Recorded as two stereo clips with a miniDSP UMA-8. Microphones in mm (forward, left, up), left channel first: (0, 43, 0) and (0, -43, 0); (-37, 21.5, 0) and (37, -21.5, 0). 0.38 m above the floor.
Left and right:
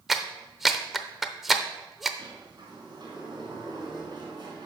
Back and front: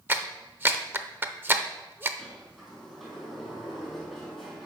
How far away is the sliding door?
About 4.5 m.